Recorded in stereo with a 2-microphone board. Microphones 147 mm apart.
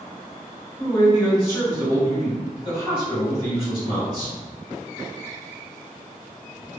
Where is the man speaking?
35° left (ahead or behind), 1.9 m.